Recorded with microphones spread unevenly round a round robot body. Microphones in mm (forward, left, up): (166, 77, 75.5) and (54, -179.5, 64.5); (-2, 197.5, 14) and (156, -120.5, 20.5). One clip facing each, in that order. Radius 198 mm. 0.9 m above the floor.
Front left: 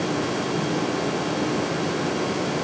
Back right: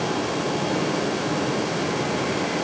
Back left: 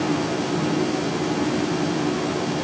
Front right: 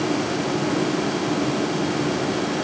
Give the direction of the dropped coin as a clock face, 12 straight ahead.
No dropped coin in this recording.